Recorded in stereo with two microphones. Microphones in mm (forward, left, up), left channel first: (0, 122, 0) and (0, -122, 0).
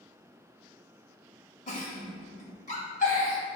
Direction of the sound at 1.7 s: 30° left (ahead or behind).